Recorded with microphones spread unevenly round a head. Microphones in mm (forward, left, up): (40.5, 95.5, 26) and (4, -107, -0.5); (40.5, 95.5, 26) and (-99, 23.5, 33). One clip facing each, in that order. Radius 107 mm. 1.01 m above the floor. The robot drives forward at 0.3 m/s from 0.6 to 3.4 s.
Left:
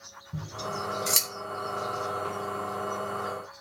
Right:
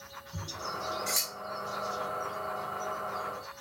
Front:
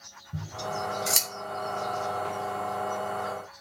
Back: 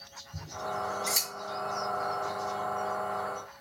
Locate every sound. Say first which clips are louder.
0.3 s scissors: left 6 dB, front 2 dB; 45° left, 2.5 m; by 1.3 s 50° left, 2.5 m